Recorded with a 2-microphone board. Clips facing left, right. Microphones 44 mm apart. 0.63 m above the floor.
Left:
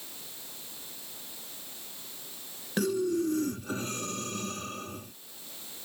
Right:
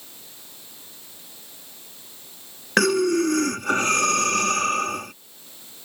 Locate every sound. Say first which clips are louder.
2.8 s breathing: right 9 dB; 90° right